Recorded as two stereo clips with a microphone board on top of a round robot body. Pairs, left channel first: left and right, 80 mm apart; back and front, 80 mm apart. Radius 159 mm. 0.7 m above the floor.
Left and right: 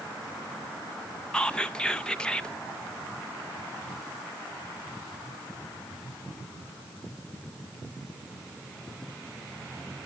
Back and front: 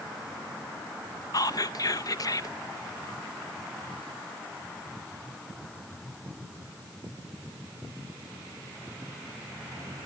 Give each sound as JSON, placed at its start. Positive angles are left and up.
{"t": 1.3, "sound": "whispering", "azimuth_deg": 170, "distance_m": 0.9}